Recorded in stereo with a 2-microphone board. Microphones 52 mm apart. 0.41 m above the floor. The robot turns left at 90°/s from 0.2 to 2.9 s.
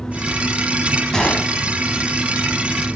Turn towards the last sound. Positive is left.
turn(degrees=10)